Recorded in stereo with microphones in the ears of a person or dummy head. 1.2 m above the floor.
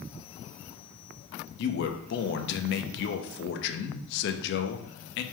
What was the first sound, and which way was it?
A man speaking, 65° left (ahead or behind).